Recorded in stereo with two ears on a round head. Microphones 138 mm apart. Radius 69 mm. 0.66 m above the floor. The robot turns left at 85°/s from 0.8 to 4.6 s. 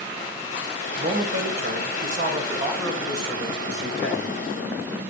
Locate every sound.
1.0 s a man speaking: 20° right, 3 m; by 4.4 s 50° left, 3 m